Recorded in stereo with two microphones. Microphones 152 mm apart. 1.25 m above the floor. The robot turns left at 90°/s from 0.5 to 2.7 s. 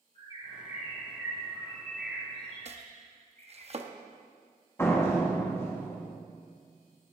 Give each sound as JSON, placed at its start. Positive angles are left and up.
{"t": 0.1, "sound": "a bird", "azimuth_deg": 140, "distance_m": 4.0}
{"t": 2.6, "sound": "chopping", "side_deg": -45, "distance_m": 0.9}
{"t": 4.8, "sound": "a door slam", "side_deg": 15, "distance_m": 1.8}